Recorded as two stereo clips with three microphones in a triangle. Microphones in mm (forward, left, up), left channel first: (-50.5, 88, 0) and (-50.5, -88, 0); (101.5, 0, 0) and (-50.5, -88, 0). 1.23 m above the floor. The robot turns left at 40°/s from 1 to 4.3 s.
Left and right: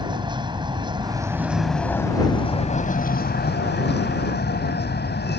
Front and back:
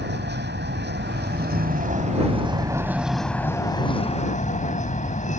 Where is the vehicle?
155° right; by 5.4 s 75° left.